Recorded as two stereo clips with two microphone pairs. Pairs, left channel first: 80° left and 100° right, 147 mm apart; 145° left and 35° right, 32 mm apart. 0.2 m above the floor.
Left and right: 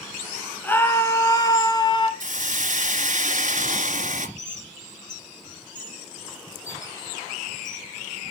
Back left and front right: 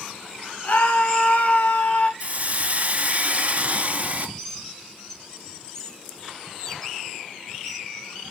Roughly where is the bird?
Left.